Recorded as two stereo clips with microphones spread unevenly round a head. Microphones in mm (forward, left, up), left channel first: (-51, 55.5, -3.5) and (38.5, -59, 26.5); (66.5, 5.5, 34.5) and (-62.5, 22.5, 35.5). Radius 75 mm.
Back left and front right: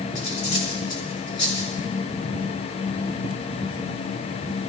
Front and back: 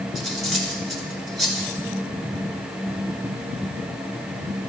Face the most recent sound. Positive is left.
turn(degrees=85)